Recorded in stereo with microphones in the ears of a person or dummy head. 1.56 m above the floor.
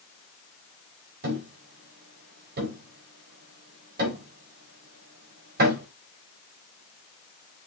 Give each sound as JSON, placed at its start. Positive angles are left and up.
{"t": 1.2, "sound": "a thud", "side_deg": -55, "distance_m": 4.0}